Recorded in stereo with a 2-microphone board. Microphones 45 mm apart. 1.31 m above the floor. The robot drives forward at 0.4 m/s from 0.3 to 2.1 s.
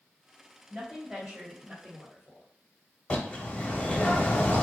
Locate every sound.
0.7 s a woman speaking: 5° right (ahead or behind), 1.2 m
3.1 s a bird: 30° left (ahead or behind), 0.7 m